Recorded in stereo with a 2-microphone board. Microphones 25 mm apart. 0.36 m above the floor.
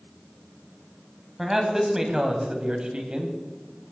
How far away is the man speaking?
About 2.5 m.